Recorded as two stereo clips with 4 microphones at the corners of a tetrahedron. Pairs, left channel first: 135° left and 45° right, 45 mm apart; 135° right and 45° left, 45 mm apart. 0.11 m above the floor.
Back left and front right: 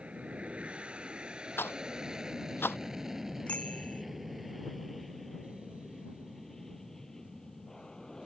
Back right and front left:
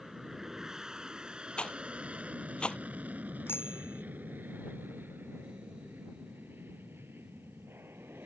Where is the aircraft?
30° right; by 8.3 s 60° left.